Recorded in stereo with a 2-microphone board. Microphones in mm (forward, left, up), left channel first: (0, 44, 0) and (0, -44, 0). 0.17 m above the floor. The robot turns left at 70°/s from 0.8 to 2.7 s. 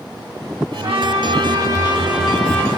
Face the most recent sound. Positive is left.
turn(degrees=155)